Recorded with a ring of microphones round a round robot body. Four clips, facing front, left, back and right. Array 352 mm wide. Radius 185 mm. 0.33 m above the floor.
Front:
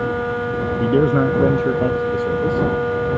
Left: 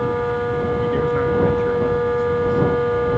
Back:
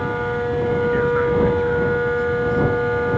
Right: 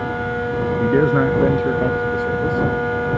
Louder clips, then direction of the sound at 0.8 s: Right 7 dB, front 5 dB; 40° right.